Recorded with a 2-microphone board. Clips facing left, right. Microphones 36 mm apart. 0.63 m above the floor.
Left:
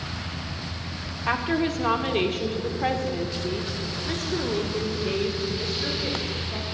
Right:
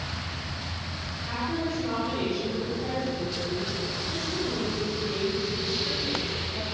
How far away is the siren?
I don't hear a siren.